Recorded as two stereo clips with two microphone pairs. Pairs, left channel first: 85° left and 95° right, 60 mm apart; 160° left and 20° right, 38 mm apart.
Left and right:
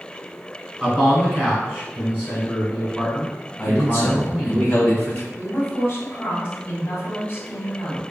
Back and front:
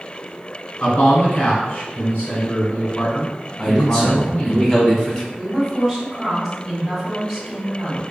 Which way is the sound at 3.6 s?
110° left.